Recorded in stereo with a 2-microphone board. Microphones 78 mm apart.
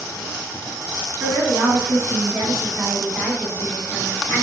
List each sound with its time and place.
1.2 s a woman speaking: 35° right (ahead or behind), 1.7 m; by 4.4 s 30° left (ahead or behind), 1.6 m